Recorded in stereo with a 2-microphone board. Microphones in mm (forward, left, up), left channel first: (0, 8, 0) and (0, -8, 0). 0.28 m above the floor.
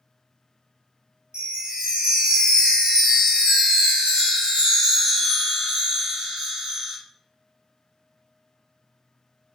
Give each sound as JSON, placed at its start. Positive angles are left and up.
{"t": 1.3, "sound": "a chime", "side_deg": -65, "distance_m": 0.6}